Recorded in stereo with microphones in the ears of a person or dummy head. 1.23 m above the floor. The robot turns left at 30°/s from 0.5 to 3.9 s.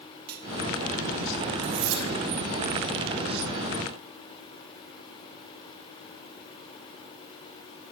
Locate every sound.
0.3 s cutlery clinking: 60° right (ahead or behind), 2.5 m
1.6 s cutlery clinking: 85° right, 4.5 m; by 2.1 s 75° right (ahead or behind), 4.5 m